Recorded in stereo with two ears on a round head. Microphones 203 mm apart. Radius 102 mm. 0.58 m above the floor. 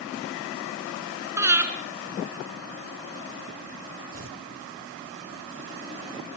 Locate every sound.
1.4 s breathing: 10° right (ahead or behind), 2.5 m
4.1 s tearing paper: 60° right (ahead or behind), 2.5 m